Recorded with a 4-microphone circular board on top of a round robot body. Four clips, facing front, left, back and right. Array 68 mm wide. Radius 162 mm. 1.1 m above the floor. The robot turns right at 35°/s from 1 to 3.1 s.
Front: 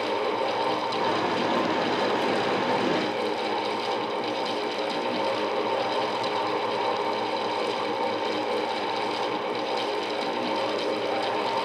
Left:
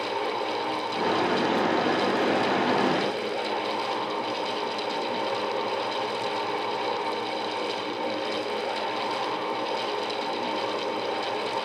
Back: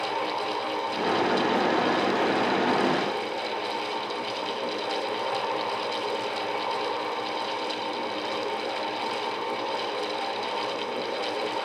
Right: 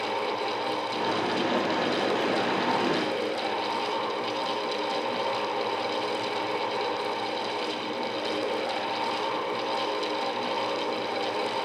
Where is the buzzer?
No buzzer in this recording.